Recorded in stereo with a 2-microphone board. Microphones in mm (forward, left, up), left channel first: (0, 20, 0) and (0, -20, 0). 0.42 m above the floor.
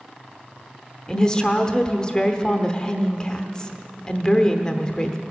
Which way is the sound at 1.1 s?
20° left (ahead or behind).